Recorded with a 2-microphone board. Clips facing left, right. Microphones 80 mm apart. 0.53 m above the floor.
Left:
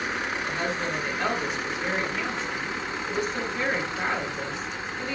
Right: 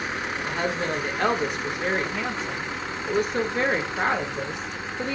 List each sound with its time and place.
0.4 s a woman speaking: 55° right (ahead or behind), 1.4 m